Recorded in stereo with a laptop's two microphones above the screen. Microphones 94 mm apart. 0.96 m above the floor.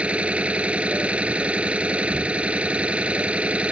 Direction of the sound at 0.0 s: 10° right (ahead or behind).